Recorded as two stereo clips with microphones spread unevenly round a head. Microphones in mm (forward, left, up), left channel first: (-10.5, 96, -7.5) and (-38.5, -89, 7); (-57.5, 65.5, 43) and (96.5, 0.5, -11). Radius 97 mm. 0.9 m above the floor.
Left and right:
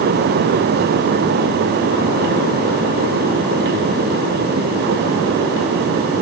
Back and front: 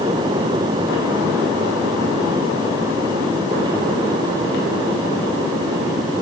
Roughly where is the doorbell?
No doorbell in this recording.